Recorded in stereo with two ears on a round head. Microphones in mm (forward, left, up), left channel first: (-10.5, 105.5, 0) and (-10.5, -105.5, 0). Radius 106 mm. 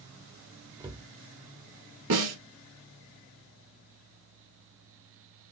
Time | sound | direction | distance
0.8 | a cupboard door | 20° right (ahead or behind) | 1.1 m
2.1 | a snare drum | 85° right | 2 m